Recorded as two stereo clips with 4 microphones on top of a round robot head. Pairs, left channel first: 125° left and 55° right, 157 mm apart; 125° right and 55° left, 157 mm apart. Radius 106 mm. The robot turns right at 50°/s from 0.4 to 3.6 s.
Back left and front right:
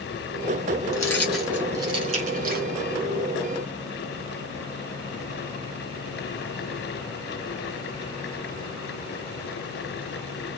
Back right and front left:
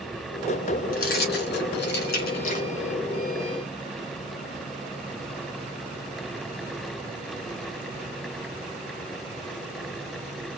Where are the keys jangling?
165° right, 1.7 m; by 2.7 s 75° right, 1.7 m.